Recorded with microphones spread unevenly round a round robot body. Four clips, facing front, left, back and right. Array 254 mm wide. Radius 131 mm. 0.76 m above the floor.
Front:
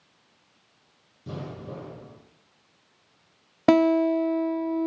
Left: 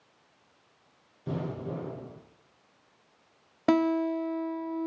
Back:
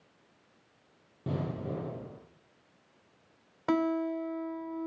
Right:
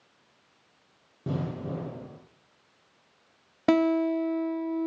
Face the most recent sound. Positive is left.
turn(degrees=-10)